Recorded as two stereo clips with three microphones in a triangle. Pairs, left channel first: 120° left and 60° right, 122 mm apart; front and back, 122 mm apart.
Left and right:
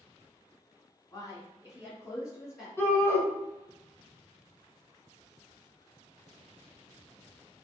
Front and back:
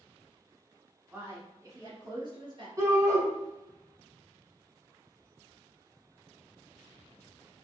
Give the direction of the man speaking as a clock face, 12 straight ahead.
8 o'clock.